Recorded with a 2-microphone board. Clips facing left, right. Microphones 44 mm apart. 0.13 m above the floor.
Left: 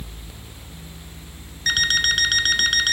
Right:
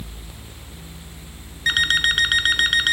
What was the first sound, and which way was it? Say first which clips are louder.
An alarm clock: right 2 dB; 20° right (ahead or behind).